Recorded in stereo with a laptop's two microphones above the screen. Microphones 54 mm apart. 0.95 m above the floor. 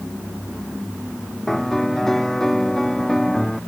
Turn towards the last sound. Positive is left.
turn(degrees=5)  # may be behind; listen again after turning